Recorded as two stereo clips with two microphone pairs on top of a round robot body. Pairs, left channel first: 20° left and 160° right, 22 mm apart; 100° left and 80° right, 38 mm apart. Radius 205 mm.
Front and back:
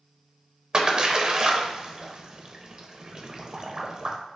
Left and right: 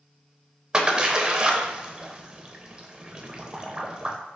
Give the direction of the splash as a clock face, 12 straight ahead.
4 o'clock.